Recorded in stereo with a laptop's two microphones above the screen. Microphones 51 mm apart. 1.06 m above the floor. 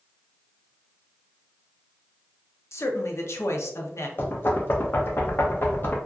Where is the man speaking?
65° left (ahead or behind), 0.6 m.